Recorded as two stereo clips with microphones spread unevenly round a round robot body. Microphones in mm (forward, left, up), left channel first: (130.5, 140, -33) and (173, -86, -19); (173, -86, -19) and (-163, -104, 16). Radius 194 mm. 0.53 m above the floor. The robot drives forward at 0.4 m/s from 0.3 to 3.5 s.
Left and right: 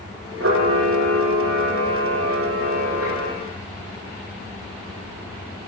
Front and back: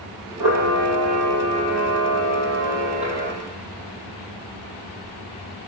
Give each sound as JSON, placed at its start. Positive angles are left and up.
{"t": 0.4, "sound": "a camera shutter", "azimuth_deg": -140, "distance_m": 9.0}